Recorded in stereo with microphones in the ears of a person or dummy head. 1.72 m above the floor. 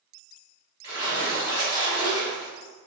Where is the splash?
25° right (ahead or behind), 1.4 m.